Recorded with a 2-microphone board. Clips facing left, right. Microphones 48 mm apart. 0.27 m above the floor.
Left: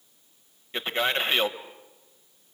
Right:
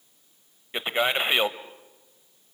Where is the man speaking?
20° right (ahead or behind), 1.0 m.